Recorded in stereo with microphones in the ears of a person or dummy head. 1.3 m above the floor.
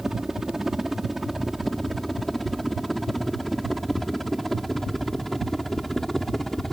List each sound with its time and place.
0.0 s a helicopter: 5° right (ahead or behind); by 6.7 s centre (ahead or behind)